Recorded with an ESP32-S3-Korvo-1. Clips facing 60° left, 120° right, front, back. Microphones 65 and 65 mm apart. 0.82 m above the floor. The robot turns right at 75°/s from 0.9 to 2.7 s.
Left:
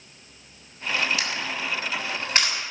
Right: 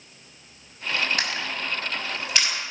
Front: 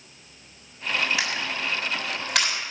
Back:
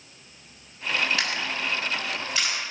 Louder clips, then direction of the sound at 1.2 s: Even, even; 85° right.